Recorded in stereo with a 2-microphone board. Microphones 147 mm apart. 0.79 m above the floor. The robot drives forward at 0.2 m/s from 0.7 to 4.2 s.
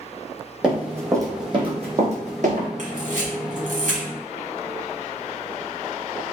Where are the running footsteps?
5° right (ahead or behind), 1.3 m; by 2.7 s 60° right (ahead or behind), 1.8 m.